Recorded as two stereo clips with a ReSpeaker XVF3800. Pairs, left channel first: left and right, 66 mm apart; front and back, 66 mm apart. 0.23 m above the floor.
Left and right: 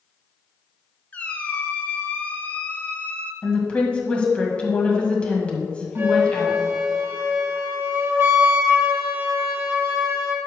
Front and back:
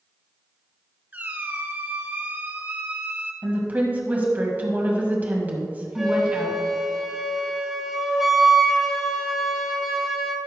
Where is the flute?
100° right, 1.8 m.